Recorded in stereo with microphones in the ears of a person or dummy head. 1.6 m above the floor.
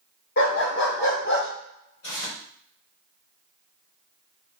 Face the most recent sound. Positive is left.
turn(degrees=75)  # may be behind; listen again after turning